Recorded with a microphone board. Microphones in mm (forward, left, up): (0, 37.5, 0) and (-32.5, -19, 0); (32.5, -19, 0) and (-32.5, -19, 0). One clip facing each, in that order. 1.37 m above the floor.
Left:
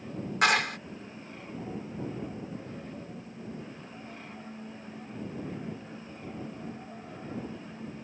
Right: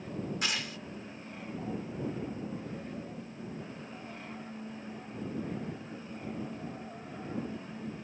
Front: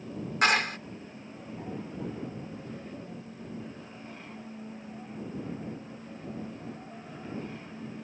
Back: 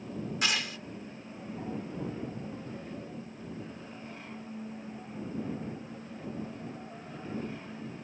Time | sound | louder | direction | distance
0.4 | a clap | left 17 dB, front 9 dB | 40° left | ?